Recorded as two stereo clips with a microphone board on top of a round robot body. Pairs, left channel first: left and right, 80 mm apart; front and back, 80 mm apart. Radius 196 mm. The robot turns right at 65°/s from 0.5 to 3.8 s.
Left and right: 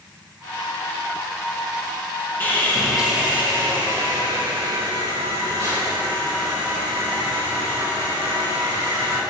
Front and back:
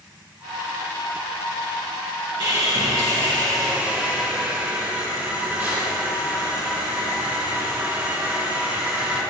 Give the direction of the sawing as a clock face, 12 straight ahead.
7 o'clock.